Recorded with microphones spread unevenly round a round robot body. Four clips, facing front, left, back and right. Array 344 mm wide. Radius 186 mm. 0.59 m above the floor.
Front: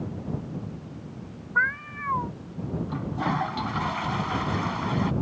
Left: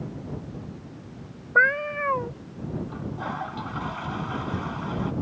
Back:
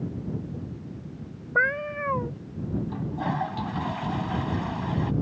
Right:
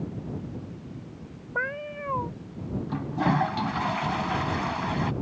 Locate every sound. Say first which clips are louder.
1.6 s a cat meowing: left 10 dB, back 2 dB; 140° left
2.9 s a toilet flushing: right 6 dB, front 5 dB; 100° right